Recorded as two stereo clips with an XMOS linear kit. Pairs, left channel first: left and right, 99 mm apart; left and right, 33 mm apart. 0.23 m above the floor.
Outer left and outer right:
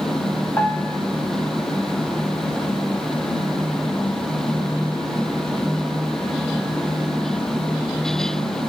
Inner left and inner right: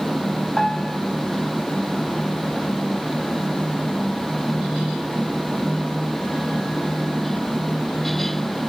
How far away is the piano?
About 1.1 m.